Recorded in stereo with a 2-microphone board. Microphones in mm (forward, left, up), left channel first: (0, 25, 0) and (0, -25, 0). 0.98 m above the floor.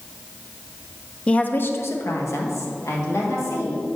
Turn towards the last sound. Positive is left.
turn(degrees=75)  # may be behind; listen again after turning